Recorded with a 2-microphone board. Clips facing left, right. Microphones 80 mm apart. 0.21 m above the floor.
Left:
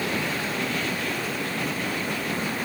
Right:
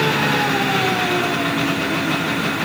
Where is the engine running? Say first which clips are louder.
Right 10 dB; 80° right.